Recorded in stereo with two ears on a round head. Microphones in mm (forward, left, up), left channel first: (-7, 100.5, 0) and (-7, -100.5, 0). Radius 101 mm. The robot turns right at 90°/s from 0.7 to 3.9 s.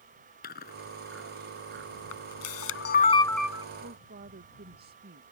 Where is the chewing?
45° left (ahead or behind); by 1.9 s 70° right (ahead or behind).